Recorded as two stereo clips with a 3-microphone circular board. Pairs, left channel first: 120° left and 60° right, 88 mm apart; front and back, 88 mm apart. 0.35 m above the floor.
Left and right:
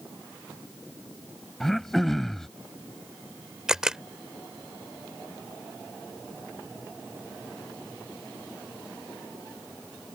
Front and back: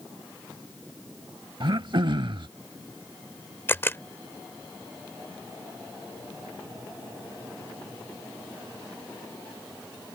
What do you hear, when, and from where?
1.6 s throat clearing: 155° right
3.7 s a camera shutter: 15° left